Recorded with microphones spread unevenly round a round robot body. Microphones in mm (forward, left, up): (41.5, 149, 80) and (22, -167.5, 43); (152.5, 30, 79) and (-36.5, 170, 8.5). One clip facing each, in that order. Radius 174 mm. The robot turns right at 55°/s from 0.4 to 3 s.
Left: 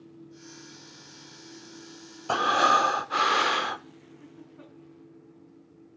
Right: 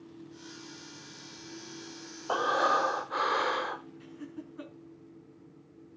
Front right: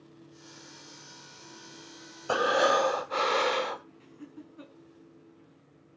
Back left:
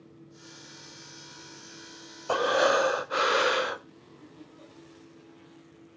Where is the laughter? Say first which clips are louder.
Right 5 dB, front right 3 dB; 65° right, 5.5 m.